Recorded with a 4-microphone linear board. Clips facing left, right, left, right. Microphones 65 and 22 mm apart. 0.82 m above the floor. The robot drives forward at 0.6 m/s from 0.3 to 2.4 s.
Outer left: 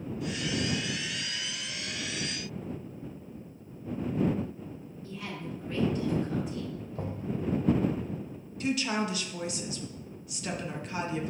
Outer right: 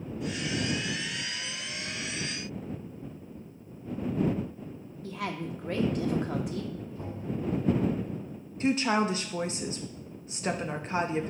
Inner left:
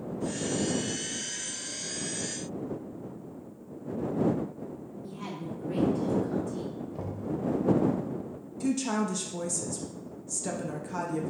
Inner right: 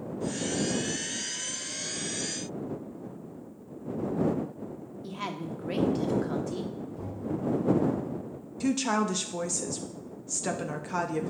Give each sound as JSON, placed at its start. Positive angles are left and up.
{"t": 5.0, "sound": "a woman speaking", "side_deg": -75, "distance_m": 1.3}
{"t": 7.0, "sound": "knocking", "side_deg": 85, "distance_m": 2.5}
{"t": 8.6, "sound": "a woman speaking", "side_deg": -35, "distance_m": 0.7}